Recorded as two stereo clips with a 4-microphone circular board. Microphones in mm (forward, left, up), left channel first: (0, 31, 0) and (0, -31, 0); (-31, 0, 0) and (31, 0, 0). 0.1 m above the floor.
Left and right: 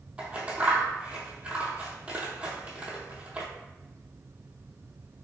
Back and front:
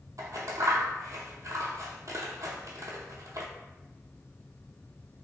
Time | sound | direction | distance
0.2 | scissors | 20° right | 0.7 m